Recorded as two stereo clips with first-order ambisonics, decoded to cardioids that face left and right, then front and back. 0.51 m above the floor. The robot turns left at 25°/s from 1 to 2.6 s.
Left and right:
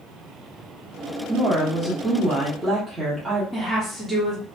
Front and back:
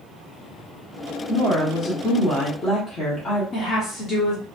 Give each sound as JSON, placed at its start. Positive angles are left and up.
{"t": 1.3, "sound": "a woman speaking", "azimuth_deg": 0, "distance_m": 1.0}
{"t": 3.5, "sound": "a woman speaking", "azimuth_deg": -15, "distance_m": 0.9}